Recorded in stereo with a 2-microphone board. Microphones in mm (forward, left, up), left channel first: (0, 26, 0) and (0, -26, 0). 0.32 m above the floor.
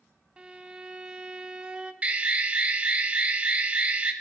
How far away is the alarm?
About 0.9 m.